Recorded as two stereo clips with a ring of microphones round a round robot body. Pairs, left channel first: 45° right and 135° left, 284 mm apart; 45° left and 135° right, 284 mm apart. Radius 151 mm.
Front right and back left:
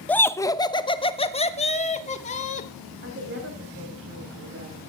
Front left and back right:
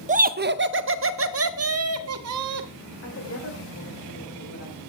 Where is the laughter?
125° right, 0.9 m; by 2.7 s 110° right, 2 m.